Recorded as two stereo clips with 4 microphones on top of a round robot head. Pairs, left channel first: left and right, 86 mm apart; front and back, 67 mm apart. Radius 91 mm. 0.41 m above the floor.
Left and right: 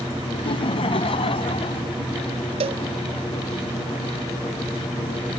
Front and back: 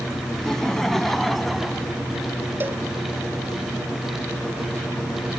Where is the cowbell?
110° right.